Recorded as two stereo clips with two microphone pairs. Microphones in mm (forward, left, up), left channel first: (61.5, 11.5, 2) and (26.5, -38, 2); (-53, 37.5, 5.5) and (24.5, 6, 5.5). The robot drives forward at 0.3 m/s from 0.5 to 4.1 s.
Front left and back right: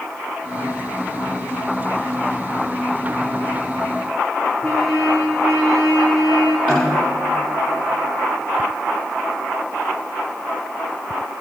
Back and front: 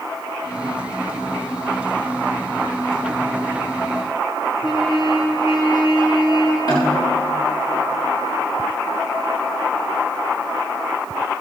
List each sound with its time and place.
4.6 s a trumpet: 145° left, 4 m
6.7 s a snare drum: 125° left, 6.5 m